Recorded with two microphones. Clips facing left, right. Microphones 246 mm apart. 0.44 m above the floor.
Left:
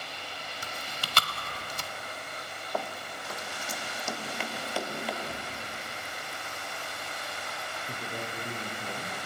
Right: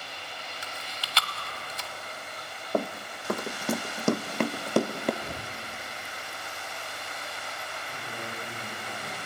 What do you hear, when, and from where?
0.6 s chewing: 50° left (ahead or behind), 1.2 m
2.7 s running footsteps: 45° right (ahead or behind), 0.7 m; by 5.1 s 50° right (ahead or behind), 1.9 m
5.2 s breathing: 35° right (ahead or behind), 3 m
7.9 s a man speaking: 45° left (ahead or behind), 6.5 m